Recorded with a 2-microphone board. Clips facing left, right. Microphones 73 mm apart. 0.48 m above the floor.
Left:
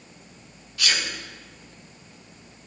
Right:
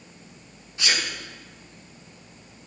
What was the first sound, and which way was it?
A sneeze, 25° right (ahead or behind).